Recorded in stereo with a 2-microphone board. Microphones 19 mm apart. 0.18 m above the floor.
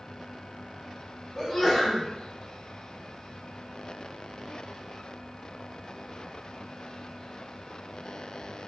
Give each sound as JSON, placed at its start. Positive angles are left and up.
{"t": 1.4, "sound": "a sneeze", "side_deg": 20, "distance_m": 1.4}